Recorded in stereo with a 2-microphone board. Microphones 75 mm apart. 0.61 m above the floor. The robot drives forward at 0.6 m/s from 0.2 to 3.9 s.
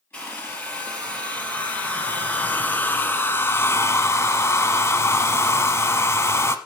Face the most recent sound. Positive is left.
turn(degrees=35)  # may be behind; listen again after turning